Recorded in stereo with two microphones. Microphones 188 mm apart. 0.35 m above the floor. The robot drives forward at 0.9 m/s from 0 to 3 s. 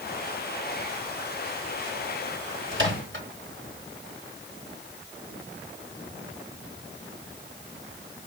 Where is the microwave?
75° right (ahead or behind), 3 m; by 3.3 s 70° right (ahead or behind), 3 m.